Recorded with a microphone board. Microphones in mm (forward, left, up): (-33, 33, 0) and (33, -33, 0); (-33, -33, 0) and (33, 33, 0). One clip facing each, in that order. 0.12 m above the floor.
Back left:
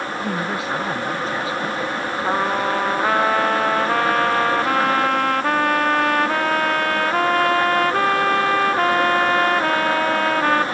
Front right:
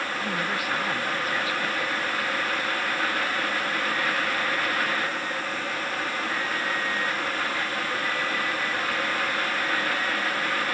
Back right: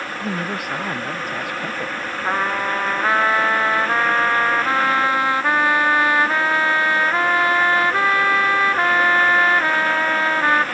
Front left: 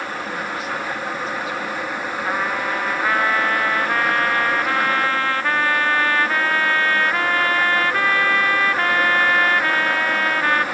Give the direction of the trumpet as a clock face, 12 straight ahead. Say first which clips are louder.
Back left 8 dB, back right 3 dB; 7 o'clock.